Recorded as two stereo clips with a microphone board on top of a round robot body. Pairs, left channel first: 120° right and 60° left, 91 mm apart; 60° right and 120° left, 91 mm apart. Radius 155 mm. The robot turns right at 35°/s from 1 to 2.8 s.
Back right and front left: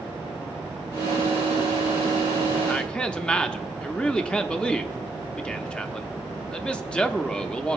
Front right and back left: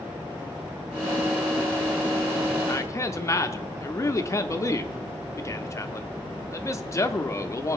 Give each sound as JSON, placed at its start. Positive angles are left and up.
{"t": 2.7, "sound": "a man speaking", "azimuth_deg": -55, "distance_m": 0.9}